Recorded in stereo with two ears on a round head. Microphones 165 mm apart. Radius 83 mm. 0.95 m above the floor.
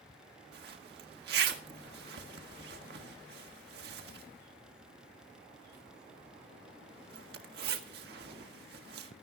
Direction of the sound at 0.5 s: 65° right (ahead or behind).